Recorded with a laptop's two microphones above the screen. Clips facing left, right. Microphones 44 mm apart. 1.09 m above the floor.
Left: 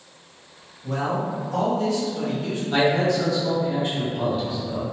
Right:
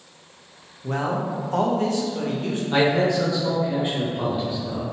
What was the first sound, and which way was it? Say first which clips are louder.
A man speaking: even; 50° right (ahead or behind).